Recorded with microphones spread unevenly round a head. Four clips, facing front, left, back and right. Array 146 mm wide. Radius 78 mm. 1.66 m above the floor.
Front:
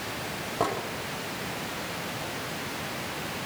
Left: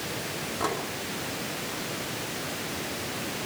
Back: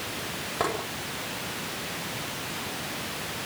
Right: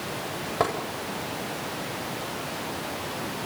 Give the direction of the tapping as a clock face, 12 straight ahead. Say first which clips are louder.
Right 4 dB, front 1 dB; 3 o'clock.